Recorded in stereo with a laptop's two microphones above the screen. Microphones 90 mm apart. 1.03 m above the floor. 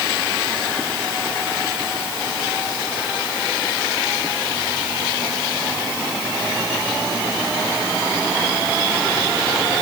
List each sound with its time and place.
Only background noise.